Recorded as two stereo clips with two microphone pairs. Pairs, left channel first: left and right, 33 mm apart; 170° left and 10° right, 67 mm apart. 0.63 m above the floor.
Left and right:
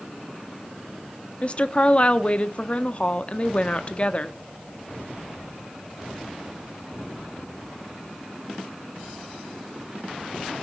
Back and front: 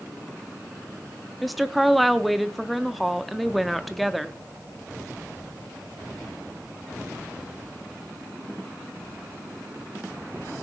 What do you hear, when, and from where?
1.4 s a woman speaking: 85° left, 0.7 m